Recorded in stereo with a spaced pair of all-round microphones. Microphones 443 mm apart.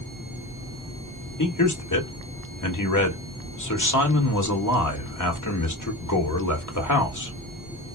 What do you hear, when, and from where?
1.4 s a man speaking: 40° left (ahead or behind), 1.4 m